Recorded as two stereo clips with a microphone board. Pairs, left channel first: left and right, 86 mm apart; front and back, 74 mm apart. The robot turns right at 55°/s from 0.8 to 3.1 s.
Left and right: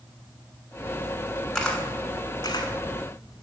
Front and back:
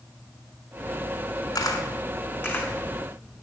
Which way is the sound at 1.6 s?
10° left.